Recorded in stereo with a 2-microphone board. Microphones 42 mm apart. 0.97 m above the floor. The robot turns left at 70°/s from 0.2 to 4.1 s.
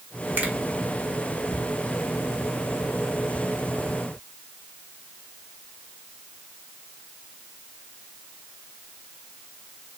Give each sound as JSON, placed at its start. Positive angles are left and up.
{"t": 0.4, "sound": "a finger snap", "side_deg": -45, "distance_m": 1.4}